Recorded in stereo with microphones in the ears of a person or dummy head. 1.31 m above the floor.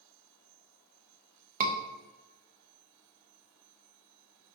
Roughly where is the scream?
Right.